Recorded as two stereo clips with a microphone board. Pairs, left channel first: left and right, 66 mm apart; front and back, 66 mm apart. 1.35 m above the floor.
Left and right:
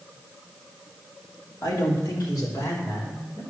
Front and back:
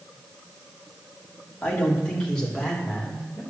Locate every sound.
1.6 s a man speaking: 65° left, 2.5 m; by 3.4 s 80° left, 4.5 m